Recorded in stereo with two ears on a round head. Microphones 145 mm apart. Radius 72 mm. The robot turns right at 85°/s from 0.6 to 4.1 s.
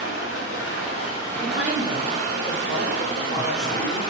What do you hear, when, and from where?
0.0 s running water: 100° left, 1.2 m; by 4.1 s 35° left, 1.2 m
1.4 s a woman speaking: 120° right, 1.5 m; by 4.0 s 100° left, 1.5 m